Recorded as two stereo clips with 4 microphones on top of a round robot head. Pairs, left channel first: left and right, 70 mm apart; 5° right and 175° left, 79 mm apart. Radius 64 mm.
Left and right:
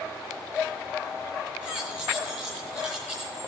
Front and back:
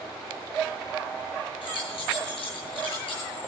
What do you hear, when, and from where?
1.6 s keys jangling: 10° left, 9 m